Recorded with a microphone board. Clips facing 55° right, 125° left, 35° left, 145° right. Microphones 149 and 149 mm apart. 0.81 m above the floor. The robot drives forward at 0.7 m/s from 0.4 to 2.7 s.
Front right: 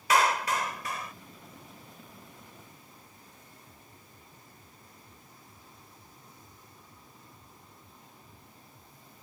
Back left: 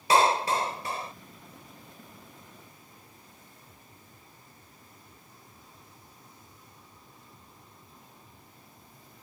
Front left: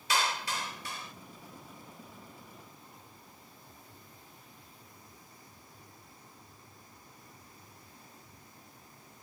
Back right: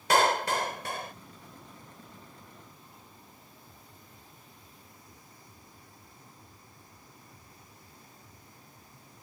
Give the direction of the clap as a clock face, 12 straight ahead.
6 o'clock.